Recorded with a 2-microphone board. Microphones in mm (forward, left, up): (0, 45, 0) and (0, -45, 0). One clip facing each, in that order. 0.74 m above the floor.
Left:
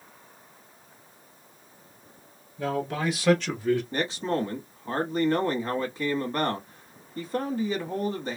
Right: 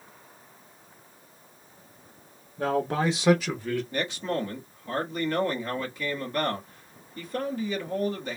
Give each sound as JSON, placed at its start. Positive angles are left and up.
{"t": 2.6, "sound": "a man speaking", "side_deg": -50, "distance_m": 1.1}
{"t": 3.9, "sound": "a man speaking", "side_deg": 30, "distance_m": 1.3}